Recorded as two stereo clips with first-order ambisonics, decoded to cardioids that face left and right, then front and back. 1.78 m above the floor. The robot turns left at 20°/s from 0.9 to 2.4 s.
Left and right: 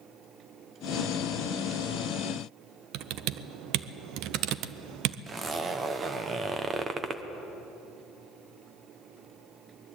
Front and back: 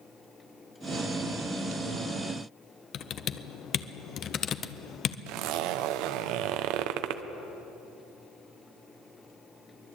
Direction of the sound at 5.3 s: 160° right.